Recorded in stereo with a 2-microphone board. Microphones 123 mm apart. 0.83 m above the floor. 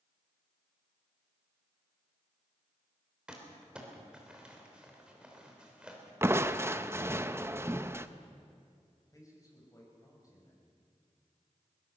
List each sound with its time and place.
3.3 s crumpling: 5° right (ahead or behind), 3.5 m
6.2 s crushing: 20° right (ahead or behind), 0.7 m
9.1 s a man speaking: 30° left (ahead or behind), 5.5 m